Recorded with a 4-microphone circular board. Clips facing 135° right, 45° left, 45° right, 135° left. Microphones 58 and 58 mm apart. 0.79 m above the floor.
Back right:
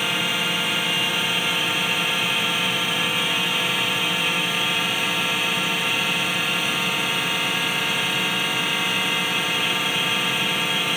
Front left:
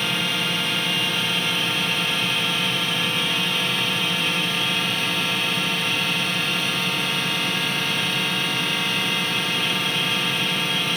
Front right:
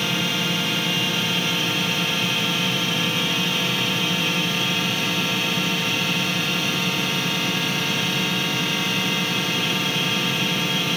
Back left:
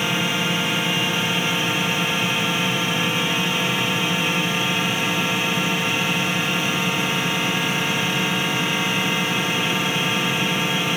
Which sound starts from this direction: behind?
A drone, at 0.0 s.